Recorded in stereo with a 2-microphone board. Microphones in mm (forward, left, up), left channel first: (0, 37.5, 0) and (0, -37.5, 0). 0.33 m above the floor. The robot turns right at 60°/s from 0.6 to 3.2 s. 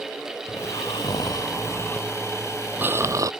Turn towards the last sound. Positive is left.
turn(degrees=-130)